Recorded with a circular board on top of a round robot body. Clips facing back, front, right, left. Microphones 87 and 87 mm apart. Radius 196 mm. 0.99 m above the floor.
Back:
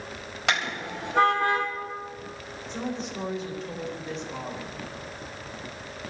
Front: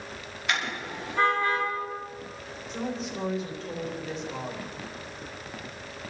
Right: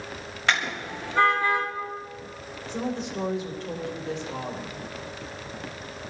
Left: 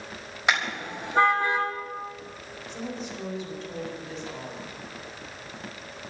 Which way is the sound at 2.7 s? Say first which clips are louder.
Even, right 5 dB; 90° right.